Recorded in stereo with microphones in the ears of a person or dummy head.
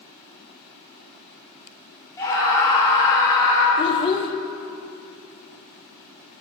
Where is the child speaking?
25° left (ahead or behind), 0.6 m.